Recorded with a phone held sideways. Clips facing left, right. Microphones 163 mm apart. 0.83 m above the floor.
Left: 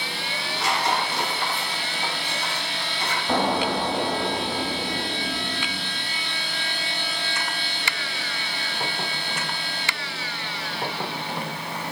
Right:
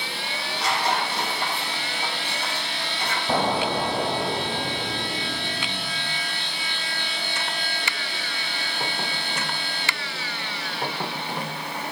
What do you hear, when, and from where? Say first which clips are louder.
0.3 s tearing paper: even; 35° right (ahead or behind), 5 m
3.3 s an explosion: left 1 dB; 5° right (ahead or behind), 1.0 m